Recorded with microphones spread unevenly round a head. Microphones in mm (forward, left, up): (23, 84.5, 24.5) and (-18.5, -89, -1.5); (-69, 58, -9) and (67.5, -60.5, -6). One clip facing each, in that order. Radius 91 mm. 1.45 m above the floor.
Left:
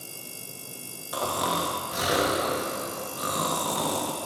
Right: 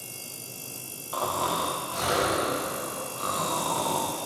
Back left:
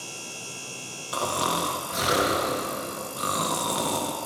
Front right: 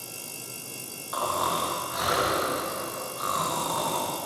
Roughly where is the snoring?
Behind left.